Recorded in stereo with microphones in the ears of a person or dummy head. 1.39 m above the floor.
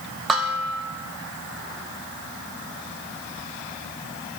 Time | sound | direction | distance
0.3 | dishes clattering | centre (ahead or behind) | 1.8 m